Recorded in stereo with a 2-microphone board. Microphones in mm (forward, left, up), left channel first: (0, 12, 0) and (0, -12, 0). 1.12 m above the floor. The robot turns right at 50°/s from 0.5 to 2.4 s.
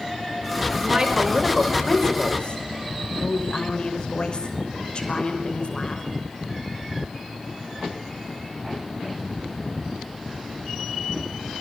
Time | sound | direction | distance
0.8 | a woman speaking | 40° right | 5.5 m